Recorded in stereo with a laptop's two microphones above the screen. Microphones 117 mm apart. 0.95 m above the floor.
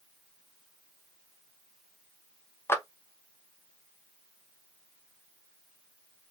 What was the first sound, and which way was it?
A clap, 20° left (ahead or behind).